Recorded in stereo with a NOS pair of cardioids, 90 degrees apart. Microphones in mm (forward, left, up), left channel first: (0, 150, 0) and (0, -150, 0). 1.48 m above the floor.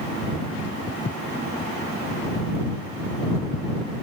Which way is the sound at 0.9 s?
25° left.